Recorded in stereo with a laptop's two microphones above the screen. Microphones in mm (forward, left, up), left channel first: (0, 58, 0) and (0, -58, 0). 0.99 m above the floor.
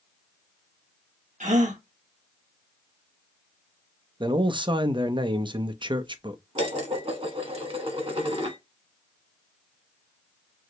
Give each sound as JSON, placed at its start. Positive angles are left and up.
{"t": 1.4, "sound": "a gasp", "side_deg": -75, "distance_m": 1.3}
{"t": 4.2, "sound": "a man speaking", "side_deg": -40, "distance_m": 0.8}
{"t": 6.5, "sound": "dishes clattering", "side_deg": -55, "distance_m": 1.1}